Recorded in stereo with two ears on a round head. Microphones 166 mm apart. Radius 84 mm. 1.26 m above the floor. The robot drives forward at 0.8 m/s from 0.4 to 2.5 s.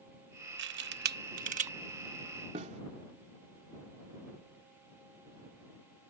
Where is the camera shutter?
65° right (ahead or behind); by 1.7 s 40° right (ahead or behind).